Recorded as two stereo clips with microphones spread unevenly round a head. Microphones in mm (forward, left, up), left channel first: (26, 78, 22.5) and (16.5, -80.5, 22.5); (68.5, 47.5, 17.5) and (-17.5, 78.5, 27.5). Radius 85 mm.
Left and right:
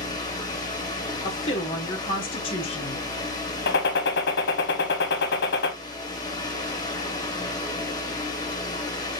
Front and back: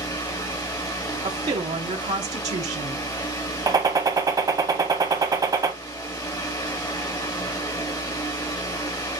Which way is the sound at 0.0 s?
20° left.